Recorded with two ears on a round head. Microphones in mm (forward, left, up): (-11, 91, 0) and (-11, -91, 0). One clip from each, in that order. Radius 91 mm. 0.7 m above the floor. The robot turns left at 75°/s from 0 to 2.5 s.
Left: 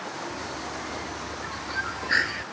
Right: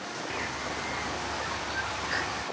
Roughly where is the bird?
Right.